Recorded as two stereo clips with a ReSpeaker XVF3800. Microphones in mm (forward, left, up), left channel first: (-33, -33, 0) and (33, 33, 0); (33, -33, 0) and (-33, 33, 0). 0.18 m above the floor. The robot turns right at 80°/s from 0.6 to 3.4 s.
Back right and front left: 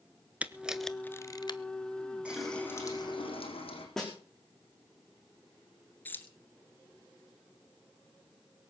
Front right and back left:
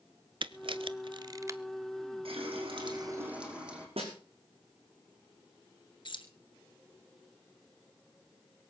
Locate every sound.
0.4 s a camera shutter: 120° left, 0.8 m; by 1.6 s 160° right, 0.8 m
2.2 s a running tap: 125° left, 4.5 m; by 3.9 s 145° right, 4.5 m
4.0 s a snare drum: 140° left, 5.5 m
6.0 s keys jangling: 65° right, 1.9 m